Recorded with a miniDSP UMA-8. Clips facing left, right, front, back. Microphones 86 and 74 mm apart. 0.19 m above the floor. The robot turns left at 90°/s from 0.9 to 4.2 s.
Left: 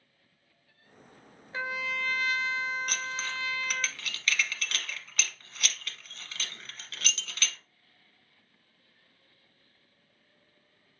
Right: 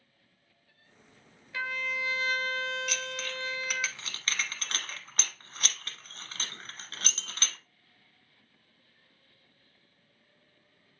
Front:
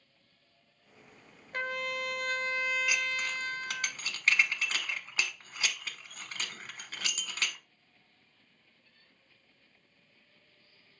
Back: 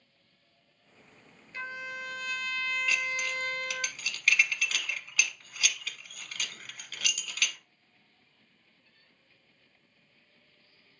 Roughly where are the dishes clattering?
Left.